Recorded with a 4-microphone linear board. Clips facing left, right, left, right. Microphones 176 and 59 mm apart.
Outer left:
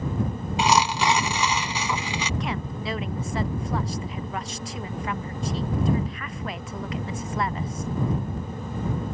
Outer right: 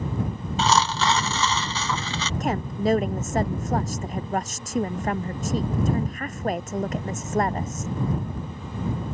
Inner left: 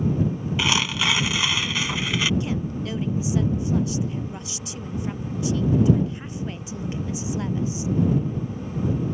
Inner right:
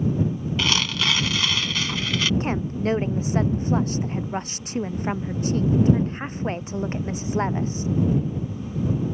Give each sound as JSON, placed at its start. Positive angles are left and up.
{"t": 0.6, "sound": "tearing paper", "side_deg": 15}
{"t": 2.4, "sound": "a woman speaking", "side_deg": -45}